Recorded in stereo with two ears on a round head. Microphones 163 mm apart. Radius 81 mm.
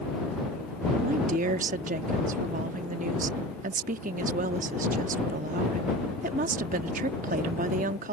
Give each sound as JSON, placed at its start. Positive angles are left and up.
{"t": 1.0, "sound": "a woman speaking", "side_deg": -45}